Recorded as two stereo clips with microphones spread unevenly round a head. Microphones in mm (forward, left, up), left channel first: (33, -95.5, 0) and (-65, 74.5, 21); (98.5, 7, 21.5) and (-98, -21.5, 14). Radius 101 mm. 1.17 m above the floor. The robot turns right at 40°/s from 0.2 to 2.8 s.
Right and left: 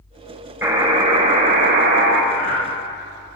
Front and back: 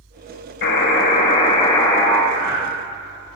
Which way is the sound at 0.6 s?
40° left.